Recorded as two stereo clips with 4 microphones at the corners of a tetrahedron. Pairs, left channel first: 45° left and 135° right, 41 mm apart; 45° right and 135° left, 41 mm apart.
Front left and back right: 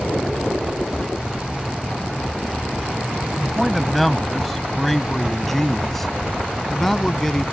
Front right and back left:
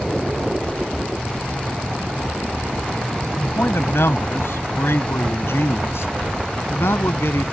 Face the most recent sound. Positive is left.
turn(degrees=-35)